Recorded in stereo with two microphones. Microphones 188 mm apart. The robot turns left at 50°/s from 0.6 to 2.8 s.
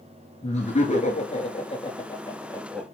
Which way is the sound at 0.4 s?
115° left.